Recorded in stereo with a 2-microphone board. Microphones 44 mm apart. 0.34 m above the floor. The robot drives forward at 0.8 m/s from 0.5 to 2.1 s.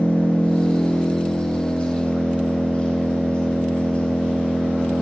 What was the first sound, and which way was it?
An engine running, 35° left (ahead or behind).